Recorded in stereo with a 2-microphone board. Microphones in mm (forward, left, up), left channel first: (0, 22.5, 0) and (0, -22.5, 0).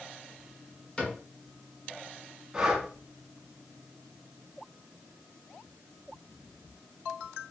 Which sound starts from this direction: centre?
Breathing, at 2.5 s.